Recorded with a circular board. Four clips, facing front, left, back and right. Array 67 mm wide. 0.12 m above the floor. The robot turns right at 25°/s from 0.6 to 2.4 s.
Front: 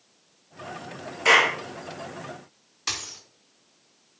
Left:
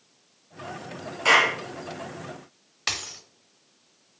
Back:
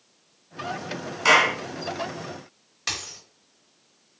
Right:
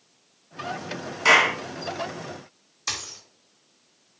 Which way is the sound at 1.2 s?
155° right.